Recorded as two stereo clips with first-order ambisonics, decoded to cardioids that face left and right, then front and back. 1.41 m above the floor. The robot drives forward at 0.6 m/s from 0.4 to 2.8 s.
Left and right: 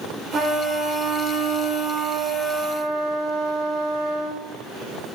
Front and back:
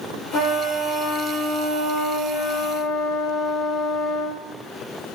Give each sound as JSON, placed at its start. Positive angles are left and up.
{"t": 0.3, "sound": "a trumpet", "azimuth_deg": -20, "distance_m": 4.5}